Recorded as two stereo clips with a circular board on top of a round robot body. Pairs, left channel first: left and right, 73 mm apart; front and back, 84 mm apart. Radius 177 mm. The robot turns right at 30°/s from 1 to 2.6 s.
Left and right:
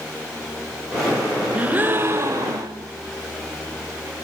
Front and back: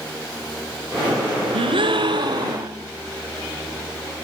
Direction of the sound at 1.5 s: 165° right.